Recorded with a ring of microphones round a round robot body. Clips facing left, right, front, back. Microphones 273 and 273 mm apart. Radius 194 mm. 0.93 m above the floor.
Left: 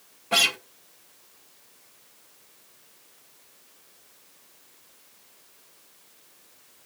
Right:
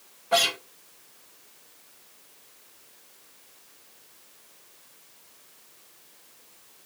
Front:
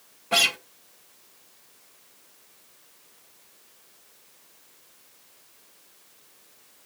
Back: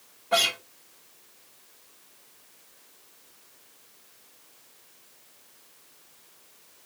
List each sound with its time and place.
0.3 s a guitar: 45° left, 1.6 m